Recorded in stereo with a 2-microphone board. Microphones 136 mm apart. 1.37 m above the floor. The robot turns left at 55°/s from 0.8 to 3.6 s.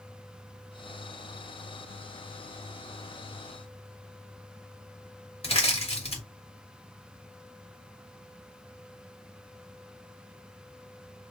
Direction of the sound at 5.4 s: 50° left (ahead or behind).